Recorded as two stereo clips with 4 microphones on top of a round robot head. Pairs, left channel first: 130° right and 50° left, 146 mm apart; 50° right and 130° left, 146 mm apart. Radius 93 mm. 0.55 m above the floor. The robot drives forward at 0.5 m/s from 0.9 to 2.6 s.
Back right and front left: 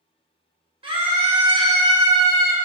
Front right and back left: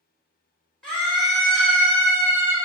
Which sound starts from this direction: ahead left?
A scream, at 0.8 s.